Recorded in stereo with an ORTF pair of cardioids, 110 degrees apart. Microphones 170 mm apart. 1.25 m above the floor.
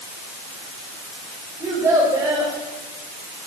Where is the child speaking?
15° right, 5 m.